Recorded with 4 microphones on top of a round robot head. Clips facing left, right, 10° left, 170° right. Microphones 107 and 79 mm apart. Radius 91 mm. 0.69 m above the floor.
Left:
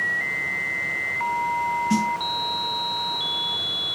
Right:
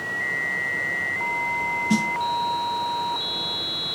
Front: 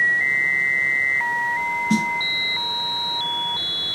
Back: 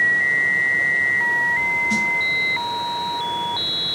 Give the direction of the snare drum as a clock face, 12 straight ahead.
1 o'clock.